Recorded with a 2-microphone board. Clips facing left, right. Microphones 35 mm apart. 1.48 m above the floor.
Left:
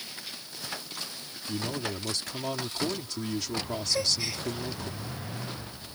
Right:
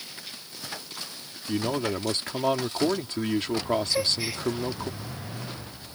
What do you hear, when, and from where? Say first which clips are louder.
1.5 s a man speaking: right 6 dB; 40° right (ahead or behind)
3.9 s a gasp: right 2 dB; 15° right (ahead or behind)